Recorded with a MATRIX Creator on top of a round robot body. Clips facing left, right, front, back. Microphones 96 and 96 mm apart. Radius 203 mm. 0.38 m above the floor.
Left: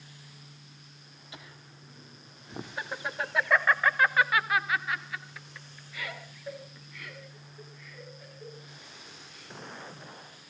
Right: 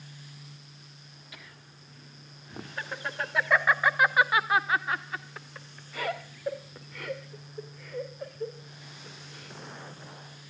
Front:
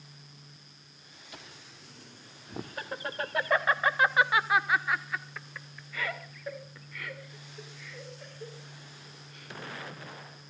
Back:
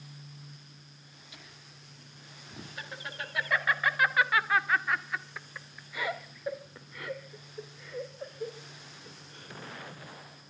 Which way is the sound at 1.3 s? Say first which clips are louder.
Left 4 dB, front 6 dB; 30° left.